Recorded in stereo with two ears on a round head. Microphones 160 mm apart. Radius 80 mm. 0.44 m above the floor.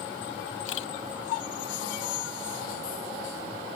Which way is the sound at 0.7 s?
85° left.